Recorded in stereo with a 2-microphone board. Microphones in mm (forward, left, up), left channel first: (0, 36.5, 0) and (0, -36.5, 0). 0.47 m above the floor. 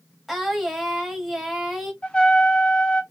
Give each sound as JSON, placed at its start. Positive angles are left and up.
{"t": 0.3, "sound": "singing", "side_deg": 0, "distance_m": 1.0}
{"t": 2.0, "sound": "a trumpet", "side_deg": 15, "distance_m": 0.7}